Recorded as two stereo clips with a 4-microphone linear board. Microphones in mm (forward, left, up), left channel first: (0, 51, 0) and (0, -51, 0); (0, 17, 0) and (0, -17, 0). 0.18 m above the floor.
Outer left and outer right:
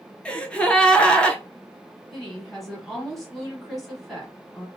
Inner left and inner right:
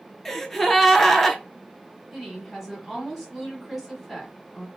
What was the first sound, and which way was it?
A gasp, 10° left (ahead or behind).